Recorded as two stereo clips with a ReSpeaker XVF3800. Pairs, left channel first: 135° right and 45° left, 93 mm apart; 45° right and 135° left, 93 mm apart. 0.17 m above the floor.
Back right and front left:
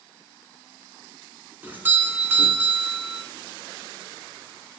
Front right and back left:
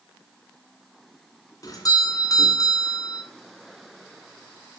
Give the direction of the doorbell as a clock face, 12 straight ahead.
1 o'clock.